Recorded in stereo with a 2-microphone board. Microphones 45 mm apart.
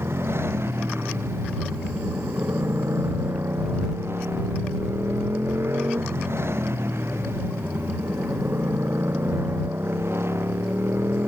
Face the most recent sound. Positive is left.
turn(degrees=-65)  # may be behind; listen again after turning